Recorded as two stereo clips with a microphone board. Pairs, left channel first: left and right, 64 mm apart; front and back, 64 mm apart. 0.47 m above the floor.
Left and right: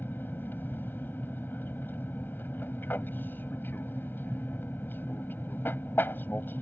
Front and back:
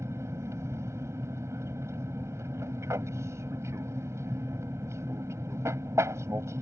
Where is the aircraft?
145° left.